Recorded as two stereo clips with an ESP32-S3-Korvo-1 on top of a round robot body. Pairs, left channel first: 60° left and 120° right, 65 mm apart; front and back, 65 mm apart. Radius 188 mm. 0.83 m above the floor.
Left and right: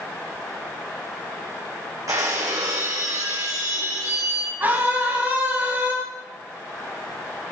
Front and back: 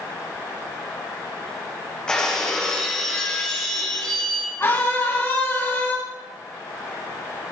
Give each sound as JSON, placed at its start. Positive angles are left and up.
{"t": 2.1, "sound": "breaking glass", "azimuth_deg": -80, "distance_m": 3.0}
{"t": 4.6, "sound": "a scream", "azimuth_deg": -55, "distance_m": 7.5}